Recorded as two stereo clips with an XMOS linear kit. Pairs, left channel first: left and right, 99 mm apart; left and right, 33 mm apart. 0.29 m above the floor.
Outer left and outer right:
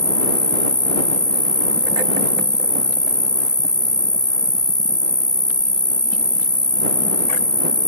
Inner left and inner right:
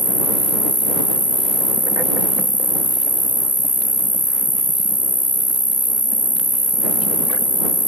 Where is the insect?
45° left (ahead or behind).